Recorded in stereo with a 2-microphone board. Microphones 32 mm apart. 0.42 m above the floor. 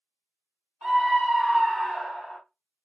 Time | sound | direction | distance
0.8 | a scream | 5° right (ahead or behind) | 2 m